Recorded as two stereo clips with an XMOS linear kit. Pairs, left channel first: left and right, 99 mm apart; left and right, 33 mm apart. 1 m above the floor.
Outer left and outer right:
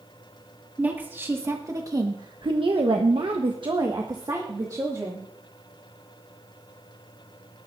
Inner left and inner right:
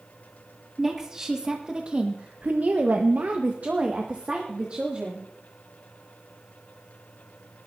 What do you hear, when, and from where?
0.8 s a woman speaking: 15° right (ahead or behind), 2 m; by 5.2 s 30° right (ahead or behind), 2.5 m